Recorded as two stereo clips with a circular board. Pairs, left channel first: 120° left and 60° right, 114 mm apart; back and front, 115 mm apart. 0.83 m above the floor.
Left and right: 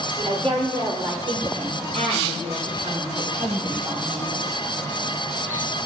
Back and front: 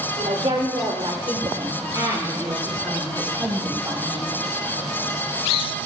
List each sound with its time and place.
0.2 s a woman speaking: 15° right, 2.5 m; by 4.4 s 80° right, 4.5 m